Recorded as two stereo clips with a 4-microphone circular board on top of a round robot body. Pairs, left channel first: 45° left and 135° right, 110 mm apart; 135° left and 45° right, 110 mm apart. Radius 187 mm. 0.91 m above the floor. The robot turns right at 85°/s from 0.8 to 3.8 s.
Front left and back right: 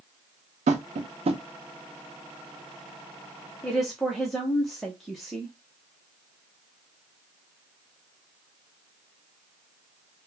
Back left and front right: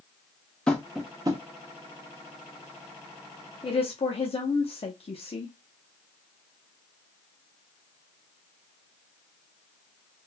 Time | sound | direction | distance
0.7 | tapping | 145° right | 0.7 m
3.6 | a woman speaking | 120° left | 1.1 m